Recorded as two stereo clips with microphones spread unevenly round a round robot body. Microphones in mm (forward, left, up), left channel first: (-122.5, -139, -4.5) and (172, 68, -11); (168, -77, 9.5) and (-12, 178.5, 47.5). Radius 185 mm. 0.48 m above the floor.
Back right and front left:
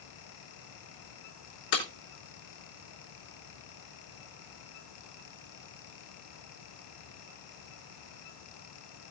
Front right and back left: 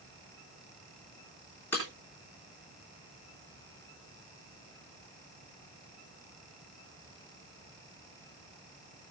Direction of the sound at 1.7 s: 140° right.